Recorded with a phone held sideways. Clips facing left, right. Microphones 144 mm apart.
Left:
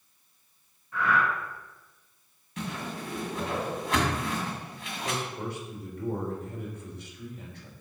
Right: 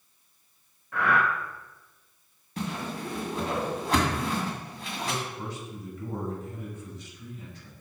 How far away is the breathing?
About 0.6 m.